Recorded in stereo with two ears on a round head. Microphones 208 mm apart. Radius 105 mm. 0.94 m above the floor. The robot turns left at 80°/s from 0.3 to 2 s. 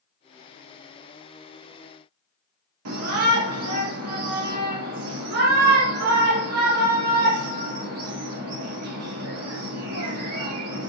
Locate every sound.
2.9 s a shout: 75° right (ahead or behind), 2.5 m